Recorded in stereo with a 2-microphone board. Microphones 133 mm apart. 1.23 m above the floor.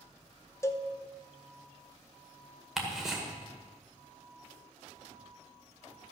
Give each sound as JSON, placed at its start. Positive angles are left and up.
{"t": 0.6, "sound": "a cowbell", "side_deg": 20, "distance_m": 0.7}
{"t": 2.8, "sound": "ticking", "side_deg": -5, "distance_m": 1.8}